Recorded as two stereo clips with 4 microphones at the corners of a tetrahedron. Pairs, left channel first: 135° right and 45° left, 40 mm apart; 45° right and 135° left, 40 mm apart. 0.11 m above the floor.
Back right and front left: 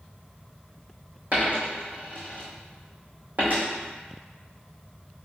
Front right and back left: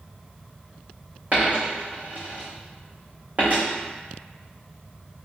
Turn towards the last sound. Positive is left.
turn(degrees=90)